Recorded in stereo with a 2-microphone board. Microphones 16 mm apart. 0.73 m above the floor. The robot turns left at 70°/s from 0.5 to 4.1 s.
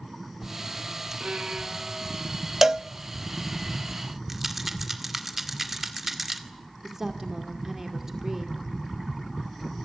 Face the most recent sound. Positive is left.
turn(degrees=-20)  # may be behind; listen again after turning